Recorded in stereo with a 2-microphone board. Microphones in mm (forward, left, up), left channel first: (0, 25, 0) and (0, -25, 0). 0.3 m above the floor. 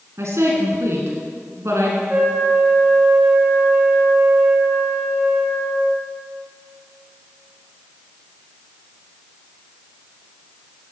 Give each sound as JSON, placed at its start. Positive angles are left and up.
{"t": 0.2, "sound": "a woman speaking", "side_deg": -70, "distance_m": 2.5}
{"t": 2.1, "sound": "a flute", "side_deg": -40, "distance_m": 3.5}